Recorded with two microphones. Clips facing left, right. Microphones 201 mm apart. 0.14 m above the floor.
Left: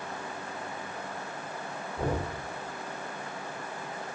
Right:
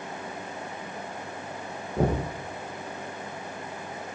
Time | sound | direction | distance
2.0 | knocking | 80° right | 6 m